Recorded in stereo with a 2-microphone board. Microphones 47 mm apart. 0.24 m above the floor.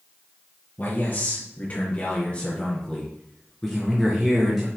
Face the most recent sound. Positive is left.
turn(degrees=-5)  # may be behind; listen again after turning